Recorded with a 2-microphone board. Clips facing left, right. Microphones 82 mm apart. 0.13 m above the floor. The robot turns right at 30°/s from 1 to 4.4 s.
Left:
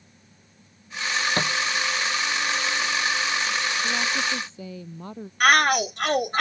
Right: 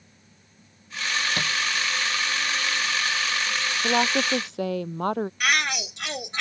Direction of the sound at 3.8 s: 70° right (ahead or behind).